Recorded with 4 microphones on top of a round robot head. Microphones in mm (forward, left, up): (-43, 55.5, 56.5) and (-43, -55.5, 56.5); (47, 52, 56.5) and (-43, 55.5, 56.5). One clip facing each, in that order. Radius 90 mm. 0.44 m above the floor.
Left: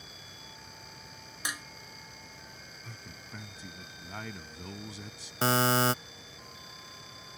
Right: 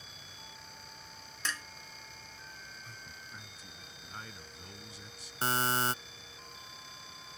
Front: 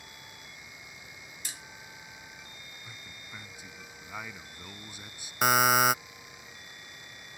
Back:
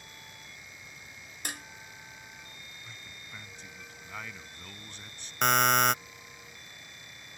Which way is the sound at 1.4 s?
165° left.